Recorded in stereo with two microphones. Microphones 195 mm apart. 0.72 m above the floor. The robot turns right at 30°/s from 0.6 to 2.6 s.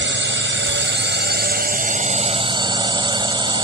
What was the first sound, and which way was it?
A drone, 85° right.